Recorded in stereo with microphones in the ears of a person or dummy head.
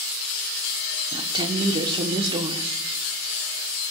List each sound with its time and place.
1.1 s a woman speaking: 20° right (ahead or behind), 1.0 m